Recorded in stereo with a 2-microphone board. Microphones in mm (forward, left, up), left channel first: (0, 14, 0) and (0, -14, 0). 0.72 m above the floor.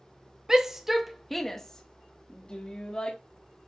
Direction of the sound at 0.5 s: 20° right (ahead or behind).